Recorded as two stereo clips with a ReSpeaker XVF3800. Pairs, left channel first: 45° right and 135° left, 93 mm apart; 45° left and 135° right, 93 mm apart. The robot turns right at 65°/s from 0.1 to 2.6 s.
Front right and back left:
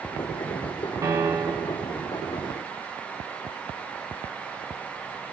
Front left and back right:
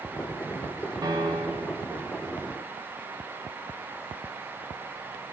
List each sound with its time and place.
1.0 s a piano: 175° right, 0.6 m; by 1.9 s 120° right, 0.6 m